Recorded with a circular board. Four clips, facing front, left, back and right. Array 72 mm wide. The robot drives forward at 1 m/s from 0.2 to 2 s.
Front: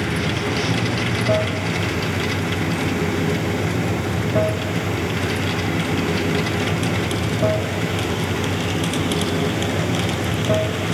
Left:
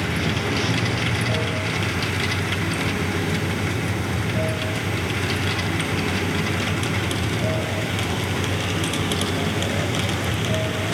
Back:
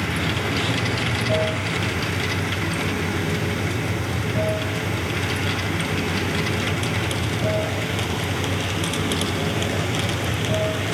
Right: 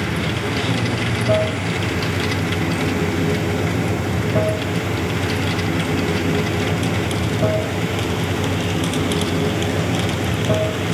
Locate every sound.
0.0 s running water: 25° right, 3.5 m; by 10.9 s 45° right, 2 m